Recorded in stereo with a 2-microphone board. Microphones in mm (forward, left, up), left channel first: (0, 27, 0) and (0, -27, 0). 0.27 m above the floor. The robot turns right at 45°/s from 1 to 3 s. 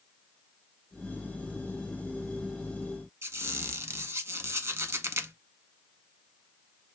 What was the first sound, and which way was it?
A squeak, 60° right (ahead or behind).